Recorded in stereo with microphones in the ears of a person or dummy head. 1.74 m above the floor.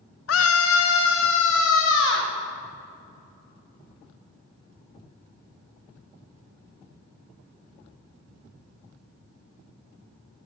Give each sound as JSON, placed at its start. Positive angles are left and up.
{"t": 0.3, "sound": "a scream", "side_deg": 80, "distance_m": 0.9}